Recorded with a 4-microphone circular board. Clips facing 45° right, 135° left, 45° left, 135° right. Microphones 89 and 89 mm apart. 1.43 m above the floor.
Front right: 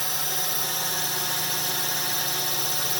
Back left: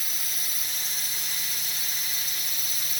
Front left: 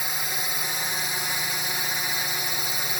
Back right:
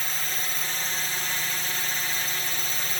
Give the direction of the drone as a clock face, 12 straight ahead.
1 o'clock.